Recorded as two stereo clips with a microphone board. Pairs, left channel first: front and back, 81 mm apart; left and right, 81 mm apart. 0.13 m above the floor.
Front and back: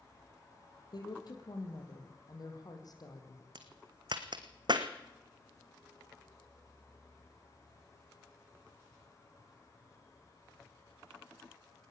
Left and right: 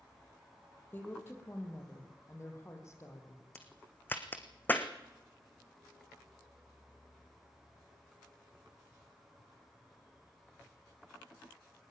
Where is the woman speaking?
25° left, 5 m; by 3.4 s 40° left, 6.5 m.